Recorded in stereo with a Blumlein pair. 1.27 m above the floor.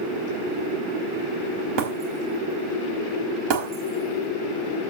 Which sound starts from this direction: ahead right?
Breaking glass, at 1.8 s.